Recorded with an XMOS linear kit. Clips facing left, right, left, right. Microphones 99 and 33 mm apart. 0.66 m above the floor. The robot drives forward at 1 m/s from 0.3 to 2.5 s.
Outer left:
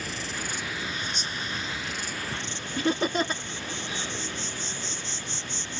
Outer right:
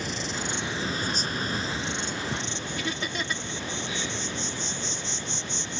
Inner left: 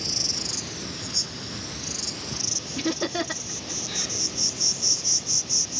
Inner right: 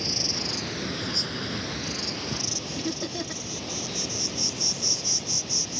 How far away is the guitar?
I don't hear a guitar.